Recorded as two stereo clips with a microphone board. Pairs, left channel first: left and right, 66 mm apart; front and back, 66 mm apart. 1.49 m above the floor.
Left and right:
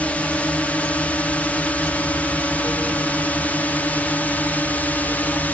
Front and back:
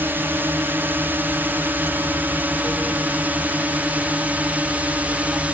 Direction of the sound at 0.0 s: 145° left.